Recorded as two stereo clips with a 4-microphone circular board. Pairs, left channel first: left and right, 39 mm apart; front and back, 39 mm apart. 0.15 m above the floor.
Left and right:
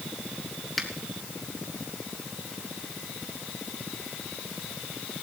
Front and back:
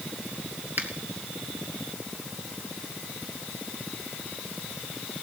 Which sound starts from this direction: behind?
A finger snap, at 0.8 s.